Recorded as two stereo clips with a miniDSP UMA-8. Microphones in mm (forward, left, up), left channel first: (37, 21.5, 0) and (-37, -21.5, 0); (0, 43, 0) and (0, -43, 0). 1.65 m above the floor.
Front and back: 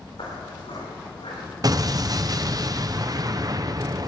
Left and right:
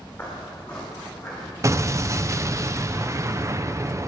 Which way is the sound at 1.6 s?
130° right.